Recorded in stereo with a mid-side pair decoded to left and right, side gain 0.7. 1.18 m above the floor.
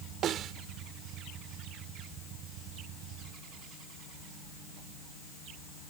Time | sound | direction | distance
0.2 | a snare drum | 45° right | ?